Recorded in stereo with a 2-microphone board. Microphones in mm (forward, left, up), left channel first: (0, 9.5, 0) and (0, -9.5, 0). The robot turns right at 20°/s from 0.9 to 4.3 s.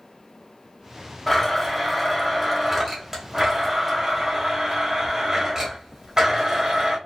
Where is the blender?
170° left, 1.5 m; by 7.0 s 130° right, 1.5 m.